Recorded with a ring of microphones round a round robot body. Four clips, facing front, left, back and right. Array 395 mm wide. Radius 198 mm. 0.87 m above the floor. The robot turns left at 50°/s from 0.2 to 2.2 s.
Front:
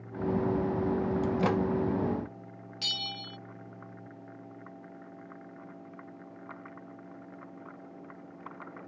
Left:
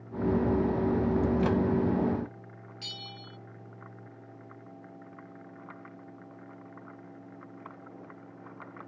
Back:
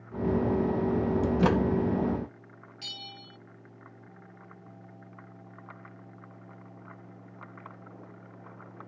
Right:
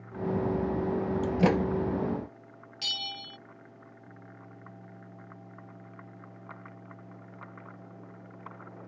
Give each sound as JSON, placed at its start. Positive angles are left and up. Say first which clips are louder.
{"t": 1.2, "sound": "a microwave", "louder": "right 1 dB, back 3 dB", "azimuth_deg": -110}
{"t": 2.8, "sound": "a bell", "louder": "right 7 dB, front 7 dB", "azimuth_deg": -45}